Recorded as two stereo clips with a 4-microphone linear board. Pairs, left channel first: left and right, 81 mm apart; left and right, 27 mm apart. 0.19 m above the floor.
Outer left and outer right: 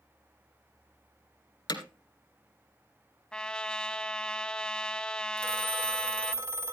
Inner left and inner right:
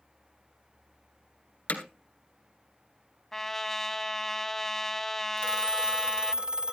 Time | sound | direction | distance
1.7 | hammering | 60° left (ahead or behind) | 2 m
3.3 | a trumpet | 10° left (ahead or behind) | 1.0 m
5.4 | a phone ringing | 35° right (ahead or behind) | 0.7 m